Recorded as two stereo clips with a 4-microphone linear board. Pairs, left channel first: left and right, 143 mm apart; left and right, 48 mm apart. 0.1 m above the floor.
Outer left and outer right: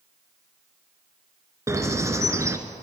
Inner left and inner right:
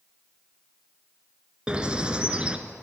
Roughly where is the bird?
Centre.